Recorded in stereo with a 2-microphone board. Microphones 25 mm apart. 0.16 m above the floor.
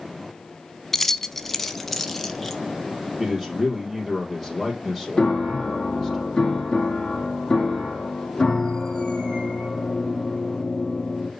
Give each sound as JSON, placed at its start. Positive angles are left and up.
{"t": 0.9, "sound": "keys jangling", "side_deg": 10, "distance_m": 0.8}
{"t": 3.2, "sound": "a man speaking", "side_deg": -10, "distance_m": 3.5}
{"t": 5.2, "sound": "a piano", "side_deg": 25, "distance_m": 2.0}